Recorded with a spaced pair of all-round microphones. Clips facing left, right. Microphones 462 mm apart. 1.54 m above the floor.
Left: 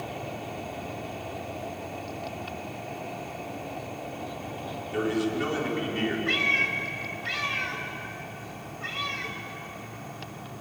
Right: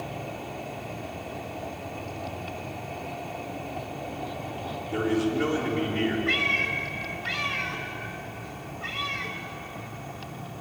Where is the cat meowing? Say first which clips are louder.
Right 1 dB; centre (ahead or behind), 2 m.